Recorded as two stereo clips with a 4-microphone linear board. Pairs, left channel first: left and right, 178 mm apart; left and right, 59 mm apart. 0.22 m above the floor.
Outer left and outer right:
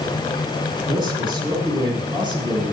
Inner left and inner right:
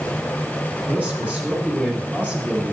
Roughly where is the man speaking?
Right.